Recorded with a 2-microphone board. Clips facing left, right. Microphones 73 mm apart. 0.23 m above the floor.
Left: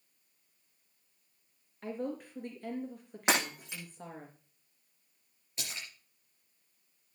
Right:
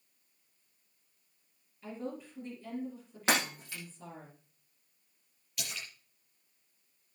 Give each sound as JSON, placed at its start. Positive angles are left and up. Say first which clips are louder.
{"t": 1.8, "sound": "a woman speaking", "louder": "left 3 dB", "side_deg": 65, "distance_m": 4.0}
{"t": 3.3, "sound": "breaking glass", "louder": "even", "side_deg": 20, "distance_m": 7.0}
{"t": 5.6, "sound": "a splash", "louder": "right 1 dB", "side_deg": 30, "distance_m": 6.0}